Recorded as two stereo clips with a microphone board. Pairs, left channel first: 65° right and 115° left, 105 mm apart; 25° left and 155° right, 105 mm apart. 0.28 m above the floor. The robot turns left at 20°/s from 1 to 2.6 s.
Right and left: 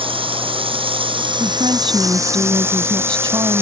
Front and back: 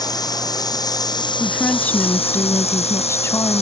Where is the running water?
75° left; by 3.6 s 45° left.